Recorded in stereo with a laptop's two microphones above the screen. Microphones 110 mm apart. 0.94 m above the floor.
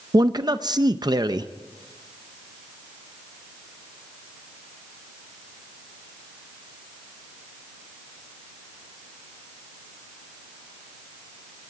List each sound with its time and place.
0.1 s a man speaking: 40° right (ahead or behind), 0.5 m